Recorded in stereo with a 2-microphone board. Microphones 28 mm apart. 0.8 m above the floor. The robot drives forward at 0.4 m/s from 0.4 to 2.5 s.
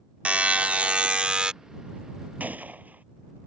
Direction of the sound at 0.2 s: 60° right (ahead or behind).